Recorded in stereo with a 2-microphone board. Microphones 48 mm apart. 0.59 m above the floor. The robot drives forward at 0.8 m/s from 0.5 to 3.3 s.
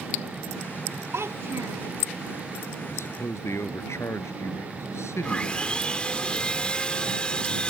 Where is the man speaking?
85° left.